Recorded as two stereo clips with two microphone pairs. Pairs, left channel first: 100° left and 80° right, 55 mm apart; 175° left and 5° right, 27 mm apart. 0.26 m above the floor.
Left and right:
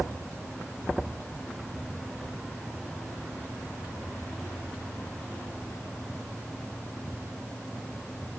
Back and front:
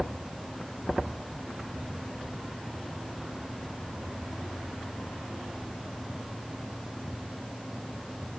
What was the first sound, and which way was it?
Only background noise.